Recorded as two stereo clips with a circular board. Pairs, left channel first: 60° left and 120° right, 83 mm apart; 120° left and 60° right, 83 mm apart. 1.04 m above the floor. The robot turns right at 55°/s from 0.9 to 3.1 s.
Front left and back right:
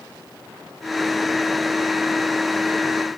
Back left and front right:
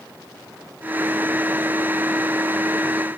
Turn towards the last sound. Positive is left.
No sound to turn to.